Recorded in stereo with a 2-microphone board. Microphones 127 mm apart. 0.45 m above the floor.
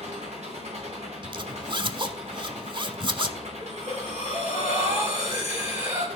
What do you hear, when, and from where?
0.0 s an engine running: 75° right (ahead or behind), 3.5 m
1.2 s a zipper: 45° right (ahead or behind), 0.5 m
3.6 s breathing: 75° right (ahead or behind), 3 m